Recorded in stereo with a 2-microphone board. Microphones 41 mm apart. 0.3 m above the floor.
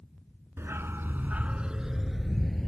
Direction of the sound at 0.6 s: 80° right.